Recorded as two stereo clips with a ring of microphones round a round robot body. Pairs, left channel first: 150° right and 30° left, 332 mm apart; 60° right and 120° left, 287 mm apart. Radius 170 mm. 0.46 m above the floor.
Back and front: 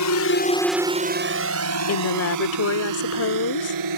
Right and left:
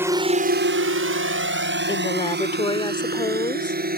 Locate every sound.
0.0 s a drone: 160° right; by 4.0 s 60° left
1.9 s a woman speaking: 130° right